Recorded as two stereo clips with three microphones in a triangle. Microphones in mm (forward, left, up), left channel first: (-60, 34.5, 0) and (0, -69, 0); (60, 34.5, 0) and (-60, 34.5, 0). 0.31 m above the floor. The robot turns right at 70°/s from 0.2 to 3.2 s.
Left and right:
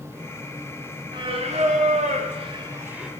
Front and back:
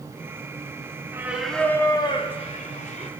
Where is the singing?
115° right, 0.6 m; by 3.1 s 25° left, 0.6 m.